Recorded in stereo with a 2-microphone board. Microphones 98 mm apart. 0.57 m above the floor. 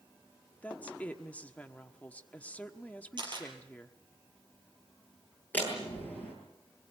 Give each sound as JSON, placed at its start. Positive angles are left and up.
{"t": 0.6, "sound": "a woman speaking", "side_deg": 15, "distance_m": 1.2}
{"t": 3.2, "sound": "a camera shutter", "side_deg": -50, "distance_m": 5.5}
{"t": 5.5, "sound": "a door slam", "side_deg": 15, "distance_m": 10.0}